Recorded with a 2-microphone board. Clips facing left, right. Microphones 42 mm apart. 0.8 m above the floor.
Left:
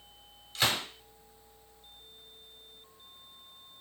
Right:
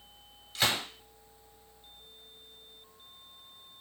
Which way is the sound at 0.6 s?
Centre (ahead or behind).